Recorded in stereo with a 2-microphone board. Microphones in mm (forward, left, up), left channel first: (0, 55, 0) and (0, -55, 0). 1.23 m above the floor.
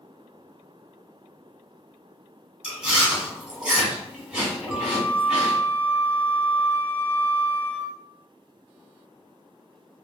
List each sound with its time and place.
2.6 s chewing: 10° right (ahead or behind), 1.0 m
4.7 s a flute: 10° right (ahead or behind), 1.2 m